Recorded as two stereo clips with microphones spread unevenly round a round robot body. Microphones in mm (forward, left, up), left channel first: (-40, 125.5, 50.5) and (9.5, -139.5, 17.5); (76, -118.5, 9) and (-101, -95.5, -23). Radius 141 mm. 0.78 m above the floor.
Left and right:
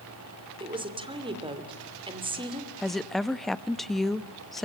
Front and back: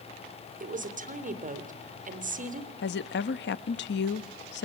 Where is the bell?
No bell in this recording.